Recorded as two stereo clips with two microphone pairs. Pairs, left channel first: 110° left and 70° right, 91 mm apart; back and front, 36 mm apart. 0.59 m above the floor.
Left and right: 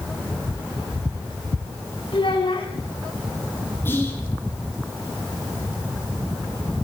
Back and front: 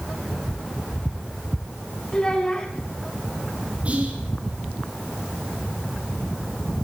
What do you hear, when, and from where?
2.1 s a child speaking: 110° left, 6 m
3.9 s whispering: 45° left, 8 m